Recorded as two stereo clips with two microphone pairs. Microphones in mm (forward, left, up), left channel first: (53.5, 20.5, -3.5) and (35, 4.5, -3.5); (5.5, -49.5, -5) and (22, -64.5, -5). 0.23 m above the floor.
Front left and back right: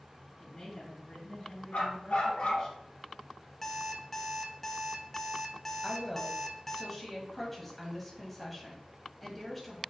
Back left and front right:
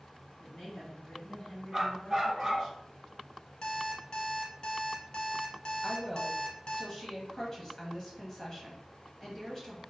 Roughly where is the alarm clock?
Left.